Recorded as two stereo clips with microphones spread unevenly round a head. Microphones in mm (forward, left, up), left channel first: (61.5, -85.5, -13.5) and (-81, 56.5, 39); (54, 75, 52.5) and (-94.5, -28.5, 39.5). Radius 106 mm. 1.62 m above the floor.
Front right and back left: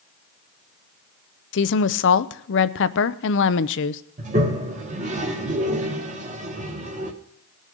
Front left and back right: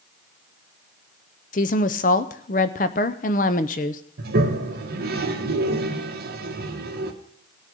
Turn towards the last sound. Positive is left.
turn(degrees=180)